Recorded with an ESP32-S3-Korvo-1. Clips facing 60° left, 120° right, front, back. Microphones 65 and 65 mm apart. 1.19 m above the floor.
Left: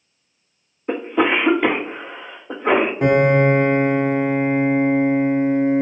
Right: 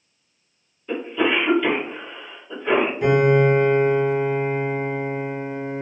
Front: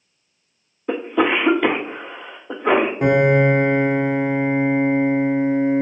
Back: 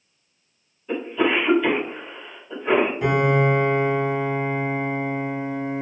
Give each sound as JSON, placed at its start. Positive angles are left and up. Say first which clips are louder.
{"t": 0.9, "sound": "a cough", "louder": "left 3 dB, front 3 dB", "azimuth_deg": 20, "distance_m": 0.6}
{"t": 3.0, "sound": "a piano", "louder": "left 1 dB, front 4 dB", "azimuth_deg": 30, "distance_m": 0.7}